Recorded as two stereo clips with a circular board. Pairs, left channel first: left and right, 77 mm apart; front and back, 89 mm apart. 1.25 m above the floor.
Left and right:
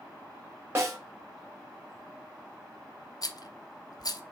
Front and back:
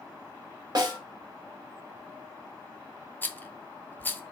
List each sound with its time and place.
0.8 s a snare drum: 145° right, 1.5 m
3.2 s a rattle: 65° left, 0.5 m